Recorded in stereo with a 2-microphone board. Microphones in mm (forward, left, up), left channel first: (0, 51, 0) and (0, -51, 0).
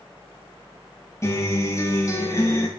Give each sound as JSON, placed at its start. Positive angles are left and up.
{"t": 1.2, "sound": "a guitar", "side_deg": 30, "distance_m": 3.0}